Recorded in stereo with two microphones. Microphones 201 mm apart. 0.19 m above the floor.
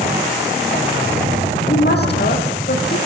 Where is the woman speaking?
55° left (ahead or behind), 6.5 m.